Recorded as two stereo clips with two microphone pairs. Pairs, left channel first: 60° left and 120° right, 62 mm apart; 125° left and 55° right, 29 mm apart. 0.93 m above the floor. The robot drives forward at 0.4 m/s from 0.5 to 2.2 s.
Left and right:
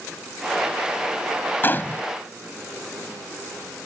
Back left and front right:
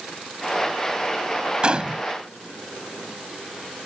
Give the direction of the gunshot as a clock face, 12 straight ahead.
12 o'clock.